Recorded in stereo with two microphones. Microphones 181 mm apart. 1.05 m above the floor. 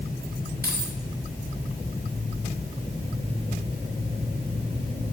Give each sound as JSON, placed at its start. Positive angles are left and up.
{"t": 0.6, "sound": "keys jangling", "side_deg": -60, "distance_m": 2.5}